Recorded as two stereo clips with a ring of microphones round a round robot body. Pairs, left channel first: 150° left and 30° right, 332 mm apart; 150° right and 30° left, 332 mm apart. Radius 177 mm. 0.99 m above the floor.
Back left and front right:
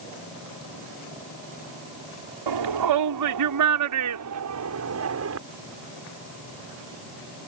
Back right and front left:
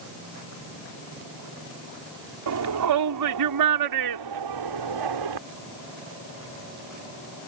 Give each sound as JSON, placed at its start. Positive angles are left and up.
{"t": 2.5, "sound": "a shout", "azimuth_deg": -10}